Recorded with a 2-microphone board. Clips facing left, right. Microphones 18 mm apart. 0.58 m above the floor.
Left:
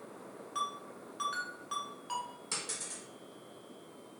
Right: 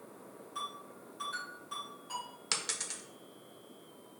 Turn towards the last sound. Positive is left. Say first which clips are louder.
# right 4 dB
turn(degrees=-50)  # may be behind; listen again after turning